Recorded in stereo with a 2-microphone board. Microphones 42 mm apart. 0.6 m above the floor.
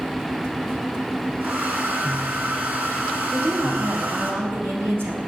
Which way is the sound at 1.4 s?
50° right (ahead or behind).